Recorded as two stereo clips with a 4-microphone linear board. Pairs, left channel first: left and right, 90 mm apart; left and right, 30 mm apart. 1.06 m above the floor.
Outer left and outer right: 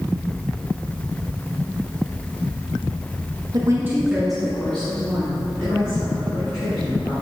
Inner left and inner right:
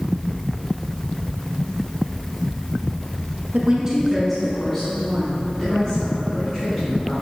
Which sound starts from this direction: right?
A woman speaking, at 3.5 s.